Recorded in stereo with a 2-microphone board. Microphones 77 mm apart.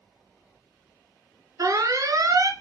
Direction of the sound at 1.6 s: 50° right (ahead or behind).